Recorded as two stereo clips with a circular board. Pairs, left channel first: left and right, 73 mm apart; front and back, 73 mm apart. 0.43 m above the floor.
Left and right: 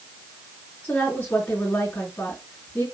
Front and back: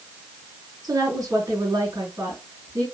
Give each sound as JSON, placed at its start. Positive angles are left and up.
{"t": 0.8, "sound": "a woman speaking", "azimuth_deg": 145, "distance_m": 4.0}